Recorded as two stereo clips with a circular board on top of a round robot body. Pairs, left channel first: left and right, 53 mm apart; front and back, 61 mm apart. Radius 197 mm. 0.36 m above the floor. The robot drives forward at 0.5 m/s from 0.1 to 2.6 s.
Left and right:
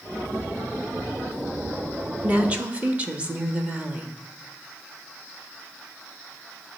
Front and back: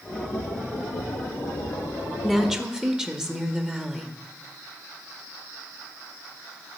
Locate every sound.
2.2 s a woman speaking: 95° right, 1.1 m; by 4.1 s 115° right, 1.2 m